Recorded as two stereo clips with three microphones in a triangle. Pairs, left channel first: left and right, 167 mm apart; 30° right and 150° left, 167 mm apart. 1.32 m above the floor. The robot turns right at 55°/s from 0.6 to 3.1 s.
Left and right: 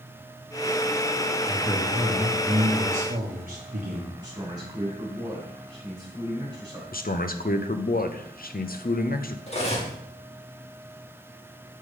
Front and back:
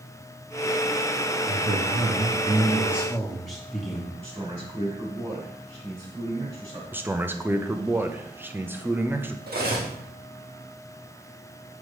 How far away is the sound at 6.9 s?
About 0.6 m.